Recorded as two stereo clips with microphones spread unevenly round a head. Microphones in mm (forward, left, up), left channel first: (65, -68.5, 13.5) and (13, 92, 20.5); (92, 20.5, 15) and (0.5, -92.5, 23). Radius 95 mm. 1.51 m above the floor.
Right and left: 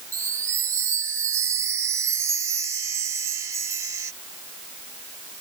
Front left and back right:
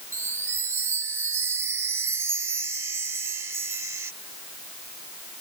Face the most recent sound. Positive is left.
turn(degrees=170)